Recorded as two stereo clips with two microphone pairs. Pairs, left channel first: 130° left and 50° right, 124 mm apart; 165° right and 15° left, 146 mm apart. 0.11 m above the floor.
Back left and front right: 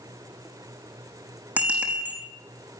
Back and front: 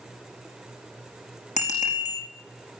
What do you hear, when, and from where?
1.6 s a bicycle bell: 130° right, 5 m